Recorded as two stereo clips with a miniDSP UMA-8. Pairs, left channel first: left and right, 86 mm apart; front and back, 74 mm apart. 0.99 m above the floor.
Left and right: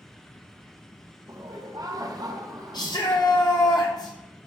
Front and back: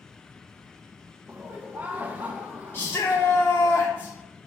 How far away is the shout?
About 0.7 m.